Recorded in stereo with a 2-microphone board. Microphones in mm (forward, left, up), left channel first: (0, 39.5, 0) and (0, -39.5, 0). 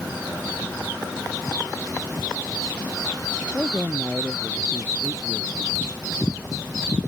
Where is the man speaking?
10° right (ahead or behind).